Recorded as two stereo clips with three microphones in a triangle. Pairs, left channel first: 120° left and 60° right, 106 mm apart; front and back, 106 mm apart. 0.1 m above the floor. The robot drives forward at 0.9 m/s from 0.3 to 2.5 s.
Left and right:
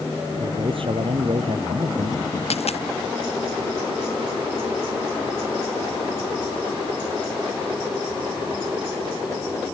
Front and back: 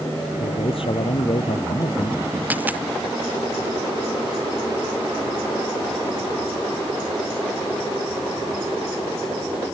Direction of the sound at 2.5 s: 105° left.